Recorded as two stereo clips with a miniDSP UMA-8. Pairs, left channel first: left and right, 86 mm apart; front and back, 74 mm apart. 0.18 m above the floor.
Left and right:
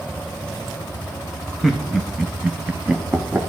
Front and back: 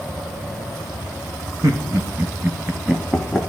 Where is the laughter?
175° right, 1.4 m; by 3.4 s 80° right, 1.0 m.